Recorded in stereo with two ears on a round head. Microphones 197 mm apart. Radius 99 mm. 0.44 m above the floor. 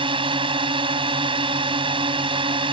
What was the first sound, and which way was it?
A drone, 25° right (ahead or behind).